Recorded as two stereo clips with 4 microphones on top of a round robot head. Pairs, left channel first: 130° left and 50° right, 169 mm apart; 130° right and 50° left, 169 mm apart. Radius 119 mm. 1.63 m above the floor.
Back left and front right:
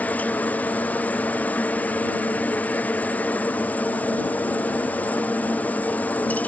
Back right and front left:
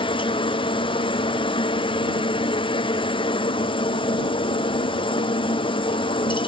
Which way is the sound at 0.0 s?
155° right.